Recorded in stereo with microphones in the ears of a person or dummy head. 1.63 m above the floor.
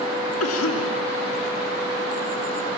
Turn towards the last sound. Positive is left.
turn(degrees=80)